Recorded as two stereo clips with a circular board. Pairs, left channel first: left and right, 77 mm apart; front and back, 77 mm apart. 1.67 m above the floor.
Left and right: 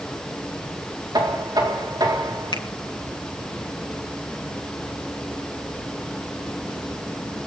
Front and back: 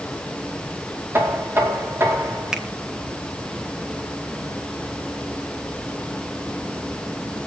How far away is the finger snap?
About 1.9 m.